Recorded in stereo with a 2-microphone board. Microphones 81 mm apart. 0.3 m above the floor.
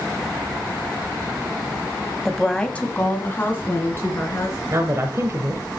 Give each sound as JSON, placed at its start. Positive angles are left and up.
{"t": 2.2, "sound": "a woman speaking", "side_deg": 0, "distance_m": 1.2}
{"t": 4.7, "sound": "a woman speaking", "side_deg": -35, "distance_m": 1.4}